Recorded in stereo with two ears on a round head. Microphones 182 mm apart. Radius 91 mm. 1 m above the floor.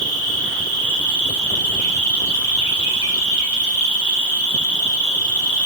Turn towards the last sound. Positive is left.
turn(degrees=35)  # may be behind; listen again after turning